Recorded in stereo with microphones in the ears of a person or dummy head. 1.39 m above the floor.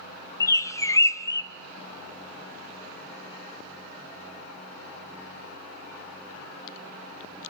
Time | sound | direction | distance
0.4 | a bird | 15° left (ahead or behind) | 0.5 m